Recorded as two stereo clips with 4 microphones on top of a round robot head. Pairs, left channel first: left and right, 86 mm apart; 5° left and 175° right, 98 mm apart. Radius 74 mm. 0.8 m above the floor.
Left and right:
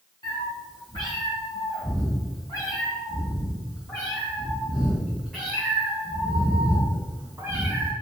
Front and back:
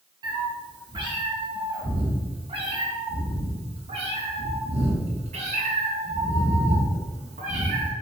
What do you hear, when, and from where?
0.2 s a cat meowing: 140° left, 4 m; by 7.9 s 160° right, 3.5 m